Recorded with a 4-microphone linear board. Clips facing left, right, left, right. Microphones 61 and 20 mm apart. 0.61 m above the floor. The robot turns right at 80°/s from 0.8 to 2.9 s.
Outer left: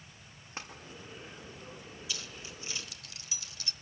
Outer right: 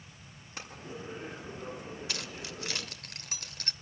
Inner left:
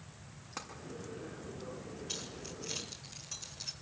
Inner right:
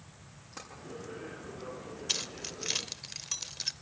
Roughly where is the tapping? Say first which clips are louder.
Outer left 1 dB, inner left 2 dB; left.